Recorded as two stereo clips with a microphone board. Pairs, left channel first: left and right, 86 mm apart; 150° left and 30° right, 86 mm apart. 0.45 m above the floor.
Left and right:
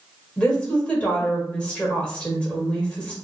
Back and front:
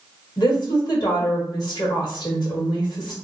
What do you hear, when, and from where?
0.4 s a woman speaking: 165° left, 1.3 m